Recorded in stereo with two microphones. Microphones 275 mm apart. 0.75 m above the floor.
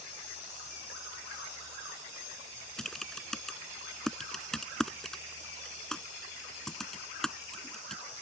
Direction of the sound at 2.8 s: Centre (ahead or behind).